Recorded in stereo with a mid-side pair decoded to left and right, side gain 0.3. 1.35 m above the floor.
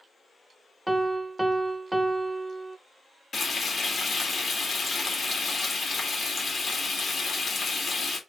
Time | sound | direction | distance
0.9 | a piano | 10° right | 0.8 m
3.3 | frying | 50° left | 2 m